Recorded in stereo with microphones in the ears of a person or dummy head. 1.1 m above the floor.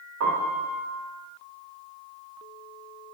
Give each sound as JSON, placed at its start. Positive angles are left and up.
{"t": 0.2, "sound": "a piano", "side_deg": -70, "distance_m": 0.9}